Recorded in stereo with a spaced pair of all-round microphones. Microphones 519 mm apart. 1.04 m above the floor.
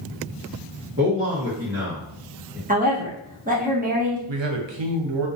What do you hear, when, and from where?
1.0 s a man speaking: 25° right (ahead or behind), 0.8 m
2.7 s a woman speaking: 15° right (ahead or behind), 0.9 m
4.3 s a man speaking: 60° right (ahead or behind), 0.6 m